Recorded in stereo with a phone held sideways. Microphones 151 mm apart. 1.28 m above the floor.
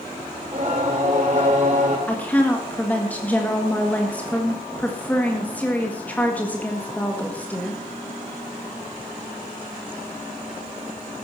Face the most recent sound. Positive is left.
turn(degrees=10)  # may be behind; listen again after turning